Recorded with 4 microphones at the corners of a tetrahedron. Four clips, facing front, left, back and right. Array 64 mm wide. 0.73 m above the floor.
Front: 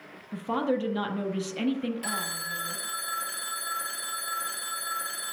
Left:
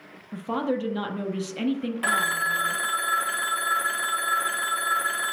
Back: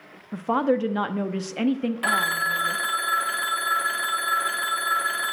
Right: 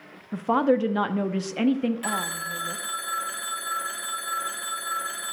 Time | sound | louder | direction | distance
0.3 | a woman speaking | right 6 dB, back 5 dB | 135° right | 0.8 m
2.0 | a phone ringing | left 6 dB, back 11 dB | 145° left | 0.6 m